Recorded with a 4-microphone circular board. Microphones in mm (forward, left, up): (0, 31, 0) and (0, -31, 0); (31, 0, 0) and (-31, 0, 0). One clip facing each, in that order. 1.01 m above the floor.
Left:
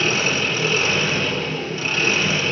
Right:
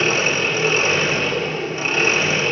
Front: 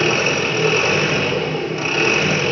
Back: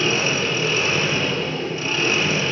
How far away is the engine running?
About 2 m.